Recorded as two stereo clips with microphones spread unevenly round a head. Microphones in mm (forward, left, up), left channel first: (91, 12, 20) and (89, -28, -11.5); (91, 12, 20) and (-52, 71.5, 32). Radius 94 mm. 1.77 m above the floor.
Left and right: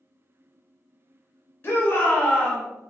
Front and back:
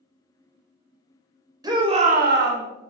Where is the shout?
95° left, 1.0 m; by 2.6 s straight behind, 0.8 m.